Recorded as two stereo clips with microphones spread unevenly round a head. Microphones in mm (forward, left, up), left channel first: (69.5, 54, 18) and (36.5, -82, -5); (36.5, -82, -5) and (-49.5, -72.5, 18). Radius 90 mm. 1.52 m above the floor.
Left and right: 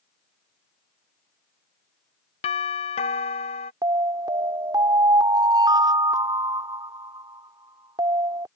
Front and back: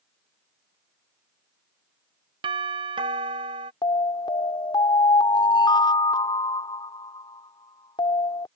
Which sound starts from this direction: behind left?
A doorbell, at 2.4 s.